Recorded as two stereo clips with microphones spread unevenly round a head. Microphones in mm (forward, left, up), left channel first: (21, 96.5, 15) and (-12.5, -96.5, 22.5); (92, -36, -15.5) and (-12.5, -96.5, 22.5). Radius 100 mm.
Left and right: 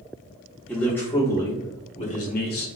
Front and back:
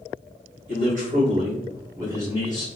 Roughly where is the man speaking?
Behind.